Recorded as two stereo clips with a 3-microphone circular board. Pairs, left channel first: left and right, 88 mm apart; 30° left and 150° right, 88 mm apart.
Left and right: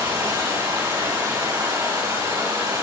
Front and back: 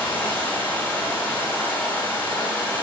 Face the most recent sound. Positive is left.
turn(degrees=-40)